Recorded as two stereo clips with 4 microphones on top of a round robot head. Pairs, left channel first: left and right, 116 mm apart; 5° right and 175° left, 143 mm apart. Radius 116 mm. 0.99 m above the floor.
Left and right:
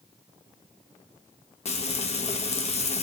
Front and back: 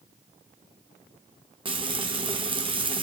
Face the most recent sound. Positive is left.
turn(degrees=120)